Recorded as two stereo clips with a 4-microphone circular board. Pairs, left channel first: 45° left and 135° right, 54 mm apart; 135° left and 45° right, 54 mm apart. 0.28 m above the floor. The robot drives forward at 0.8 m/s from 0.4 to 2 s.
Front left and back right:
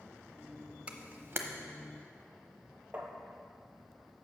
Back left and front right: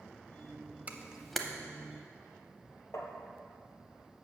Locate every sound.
0.9 s a camera shutter: 85° right, 0.5 m; by 1.4 s 140° right, 0.6 m
2.9 s tapping: 165° left, 1.2 m